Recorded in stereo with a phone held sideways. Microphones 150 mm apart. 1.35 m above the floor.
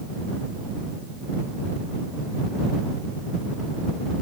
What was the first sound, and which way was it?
Only background noise.